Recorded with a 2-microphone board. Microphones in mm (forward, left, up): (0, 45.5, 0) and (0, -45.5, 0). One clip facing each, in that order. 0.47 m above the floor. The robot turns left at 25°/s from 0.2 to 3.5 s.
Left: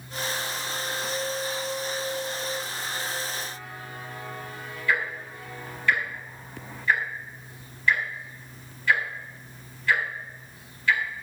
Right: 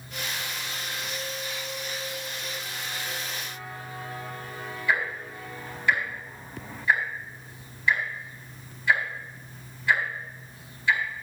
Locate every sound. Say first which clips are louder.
4.9 s ticking: even; 15° right (ahead or behind), 4 m